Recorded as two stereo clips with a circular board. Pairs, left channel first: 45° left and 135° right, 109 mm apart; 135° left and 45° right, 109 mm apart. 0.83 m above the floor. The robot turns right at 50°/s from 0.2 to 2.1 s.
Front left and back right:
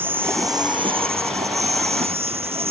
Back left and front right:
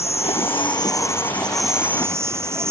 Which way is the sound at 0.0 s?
155° left.